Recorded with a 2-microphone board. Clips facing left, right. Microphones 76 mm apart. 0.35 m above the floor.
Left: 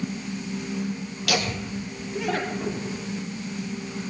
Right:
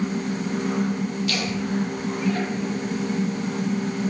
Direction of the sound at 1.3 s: 70° left (ahead or behind).